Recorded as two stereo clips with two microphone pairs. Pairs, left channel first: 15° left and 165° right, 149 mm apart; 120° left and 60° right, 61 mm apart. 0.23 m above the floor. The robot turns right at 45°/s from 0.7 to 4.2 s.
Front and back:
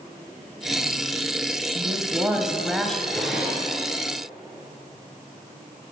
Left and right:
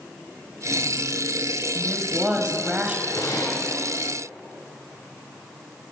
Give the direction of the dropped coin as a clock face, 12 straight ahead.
I don't hear a dropped coin.